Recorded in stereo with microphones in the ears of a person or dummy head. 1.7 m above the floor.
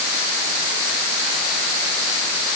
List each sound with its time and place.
Only background noise.